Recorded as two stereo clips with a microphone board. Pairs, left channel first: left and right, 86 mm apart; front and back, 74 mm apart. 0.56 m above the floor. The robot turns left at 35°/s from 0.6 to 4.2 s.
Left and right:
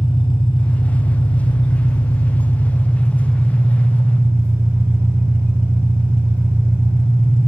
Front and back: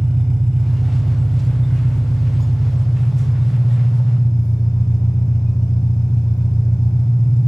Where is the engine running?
90° left, 1.3 m; by 7.5 s 35° right, 1.3 m.